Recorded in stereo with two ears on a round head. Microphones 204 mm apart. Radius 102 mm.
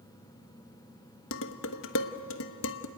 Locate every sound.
1.3 s dishes clattering: 60° left (ahead or behind), 1.1 m